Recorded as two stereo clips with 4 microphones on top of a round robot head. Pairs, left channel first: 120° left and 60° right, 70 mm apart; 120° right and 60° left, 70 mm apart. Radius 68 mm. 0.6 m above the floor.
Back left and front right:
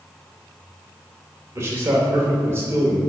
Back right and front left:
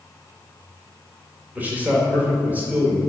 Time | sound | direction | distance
1.6 | a man speaking | 5° right | 2 m